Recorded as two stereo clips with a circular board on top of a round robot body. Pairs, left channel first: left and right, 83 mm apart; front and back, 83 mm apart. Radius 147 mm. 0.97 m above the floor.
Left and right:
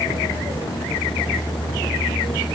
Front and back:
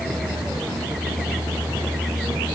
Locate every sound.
Only background noise.